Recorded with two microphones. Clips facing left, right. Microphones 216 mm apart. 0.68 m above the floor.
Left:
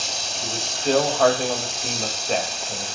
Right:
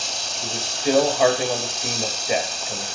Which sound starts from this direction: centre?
A man speaking, at 0.4 s.